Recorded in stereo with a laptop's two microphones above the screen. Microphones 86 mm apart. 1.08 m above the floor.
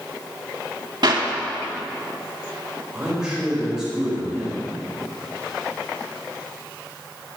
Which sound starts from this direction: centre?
A man speaking, at 2.9 s.